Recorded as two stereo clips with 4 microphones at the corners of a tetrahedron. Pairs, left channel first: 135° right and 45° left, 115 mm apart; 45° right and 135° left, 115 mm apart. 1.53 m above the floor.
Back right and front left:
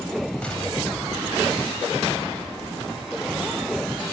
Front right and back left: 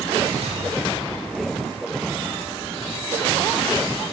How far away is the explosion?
About 4 m.